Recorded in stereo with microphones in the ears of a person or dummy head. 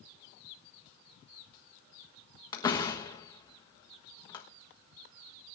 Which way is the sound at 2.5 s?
25° left (ahead or behind).